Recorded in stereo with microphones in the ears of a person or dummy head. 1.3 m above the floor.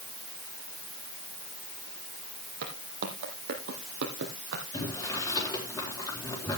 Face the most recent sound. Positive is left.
turn(degrees=20)  # may be behind; listen again after turning